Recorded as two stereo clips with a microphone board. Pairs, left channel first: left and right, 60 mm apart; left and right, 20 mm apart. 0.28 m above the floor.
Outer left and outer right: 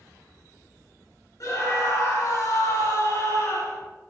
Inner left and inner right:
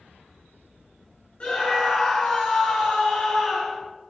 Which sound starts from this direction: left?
A scream, at 1.4 s.